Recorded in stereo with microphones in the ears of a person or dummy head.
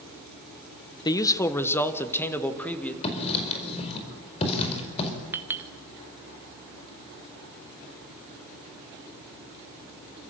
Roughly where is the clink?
Centre.